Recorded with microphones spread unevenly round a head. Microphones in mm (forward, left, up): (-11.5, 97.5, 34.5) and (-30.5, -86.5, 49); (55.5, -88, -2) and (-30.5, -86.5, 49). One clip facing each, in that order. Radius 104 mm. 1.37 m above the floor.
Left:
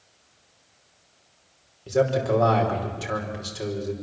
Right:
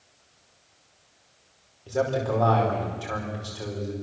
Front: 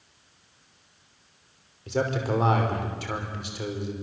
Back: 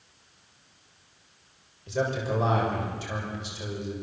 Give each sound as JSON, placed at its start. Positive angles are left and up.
{"t": 1.9, "sound": "a man speaking", "azimuth_deg": 15, "distance_m": 5.0}